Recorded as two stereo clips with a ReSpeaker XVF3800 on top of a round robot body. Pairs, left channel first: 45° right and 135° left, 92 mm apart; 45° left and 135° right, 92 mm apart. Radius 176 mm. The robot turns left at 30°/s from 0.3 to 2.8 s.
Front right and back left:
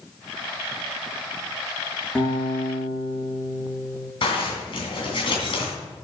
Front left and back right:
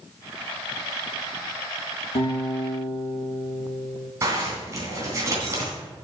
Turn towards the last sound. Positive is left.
turn(degrees=-75)